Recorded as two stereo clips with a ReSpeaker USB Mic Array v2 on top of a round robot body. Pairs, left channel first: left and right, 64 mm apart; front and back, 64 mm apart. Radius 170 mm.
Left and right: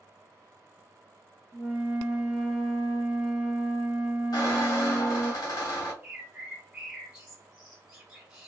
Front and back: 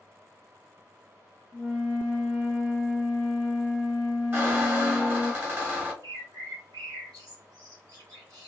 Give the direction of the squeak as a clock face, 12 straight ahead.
8 o'clock.